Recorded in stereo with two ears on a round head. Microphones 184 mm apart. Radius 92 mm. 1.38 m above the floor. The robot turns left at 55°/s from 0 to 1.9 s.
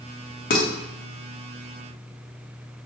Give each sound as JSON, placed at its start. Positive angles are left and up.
{"t": 0.5, "sound": "dishes clattering", "side_deg": 40, "distance_m": 0.8}